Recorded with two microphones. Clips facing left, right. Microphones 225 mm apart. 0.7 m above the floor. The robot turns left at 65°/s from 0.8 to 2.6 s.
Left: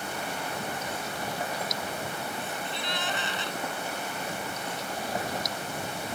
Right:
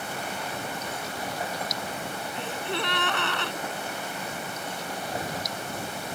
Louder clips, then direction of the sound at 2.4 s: Right 4 dB; 85° right.